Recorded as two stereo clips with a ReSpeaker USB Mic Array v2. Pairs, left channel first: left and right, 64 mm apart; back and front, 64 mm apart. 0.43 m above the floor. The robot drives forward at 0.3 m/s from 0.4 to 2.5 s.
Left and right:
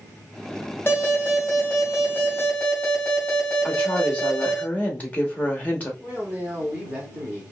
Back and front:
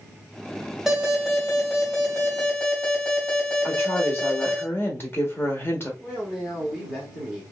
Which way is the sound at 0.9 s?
75° left.